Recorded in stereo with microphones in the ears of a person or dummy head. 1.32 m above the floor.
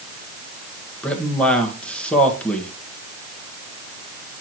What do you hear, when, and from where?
1.0 s a man speaking: 10° left (ahead or behind), 1.5 m